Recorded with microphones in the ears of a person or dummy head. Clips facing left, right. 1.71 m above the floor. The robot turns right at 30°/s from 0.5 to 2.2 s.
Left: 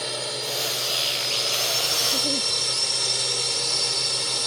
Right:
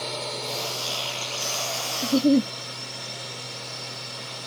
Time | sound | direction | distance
0.0 | a drone | 10° left | ?
2.0 | a giggle | 50° right (ahead or behind) | ?